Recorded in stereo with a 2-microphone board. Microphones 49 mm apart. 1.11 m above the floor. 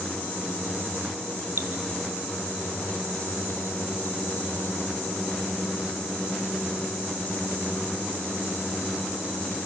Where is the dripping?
70° right (ahead or behind), 2 m.